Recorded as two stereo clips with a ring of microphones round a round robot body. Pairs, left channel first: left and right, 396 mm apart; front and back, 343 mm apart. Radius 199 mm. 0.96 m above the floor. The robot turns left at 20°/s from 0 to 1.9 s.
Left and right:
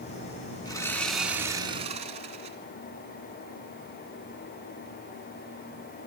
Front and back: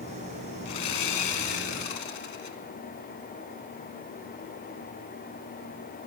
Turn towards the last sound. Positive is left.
turn(degrees=-15)